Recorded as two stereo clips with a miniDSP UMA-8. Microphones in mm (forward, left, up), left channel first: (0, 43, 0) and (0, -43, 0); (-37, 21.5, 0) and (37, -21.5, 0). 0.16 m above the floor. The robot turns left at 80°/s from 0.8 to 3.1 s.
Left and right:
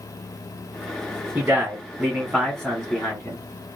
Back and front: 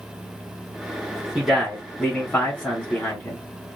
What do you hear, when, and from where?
1.4 s a man speaking: 85° right, 1.5 m; by 3.4 s 135° left, 1.5 m